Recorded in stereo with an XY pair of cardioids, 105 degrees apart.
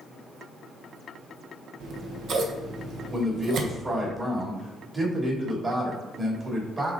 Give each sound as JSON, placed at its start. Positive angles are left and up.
{"t": 1.8, "sound": "scissors", "azimuth_deg": -65, "distance_m": 1.2}
{"t": 3.1, "sound": "a man speaking", "azimuth_deg": -30, "distance_m": 3.0}